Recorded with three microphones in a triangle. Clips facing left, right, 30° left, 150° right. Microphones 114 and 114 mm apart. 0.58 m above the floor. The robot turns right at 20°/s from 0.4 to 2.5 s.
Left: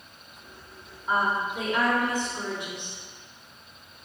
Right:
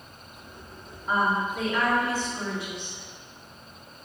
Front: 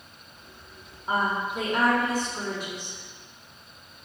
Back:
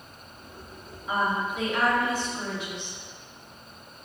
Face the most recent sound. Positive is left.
turn(degrees=30)